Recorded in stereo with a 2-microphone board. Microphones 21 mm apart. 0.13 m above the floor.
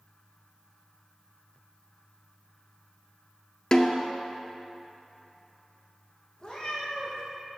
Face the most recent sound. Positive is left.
turn(degrees=35)  # may be behind; listen again after turning